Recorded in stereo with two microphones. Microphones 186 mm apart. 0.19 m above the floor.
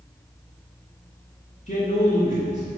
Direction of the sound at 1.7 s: 40° left (ahead or behind).